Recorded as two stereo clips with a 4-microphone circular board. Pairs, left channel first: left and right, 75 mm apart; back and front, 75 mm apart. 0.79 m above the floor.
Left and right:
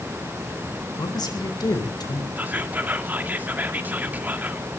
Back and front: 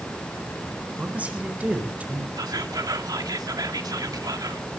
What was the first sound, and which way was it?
A man speaking, 70° left.